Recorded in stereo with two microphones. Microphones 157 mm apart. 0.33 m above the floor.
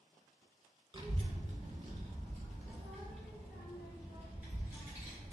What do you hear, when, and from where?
0.9 s a child speaking: 30° right (ahead or behind), 0.6 m; by 5.3 s 40° right (ahead or behind), 3 m